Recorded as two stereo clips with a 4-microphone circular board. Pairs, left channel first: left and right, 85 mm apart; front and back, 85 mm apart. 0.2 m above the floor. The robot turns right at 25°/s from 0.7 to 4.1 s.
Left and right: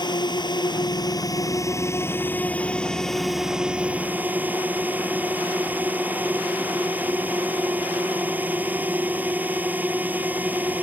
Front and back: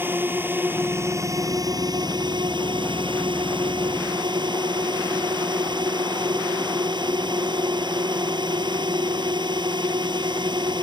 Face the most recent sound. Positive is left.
turn(degrees=-160)